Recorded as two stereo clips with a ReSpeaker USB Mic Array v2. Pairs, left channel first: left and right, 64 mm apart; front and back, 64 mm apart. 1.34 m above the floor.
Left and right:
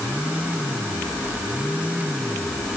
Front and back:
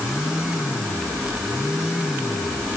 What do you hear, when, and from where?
Only background noise.